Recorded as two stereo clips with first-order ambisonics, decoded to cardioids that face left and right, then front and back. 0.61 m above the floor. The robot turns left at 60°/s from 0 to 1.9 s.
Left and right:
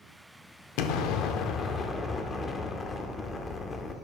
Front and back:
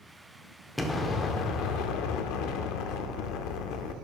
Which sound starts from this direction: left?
An explosion, at 0.8 s.